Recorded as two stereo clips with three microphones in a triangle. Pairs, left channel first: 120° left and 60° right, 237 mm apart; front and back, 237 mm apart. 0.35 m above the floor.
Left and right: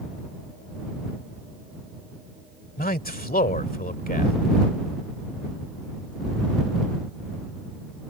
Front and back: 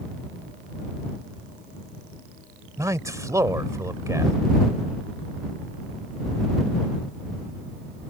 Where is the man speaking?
110° left.